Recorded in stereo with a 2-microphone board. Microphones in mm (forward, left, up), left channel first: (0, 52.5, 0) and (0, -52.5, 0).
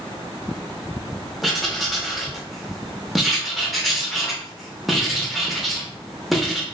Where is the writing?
Centre (ahead or behind), 0.6 m.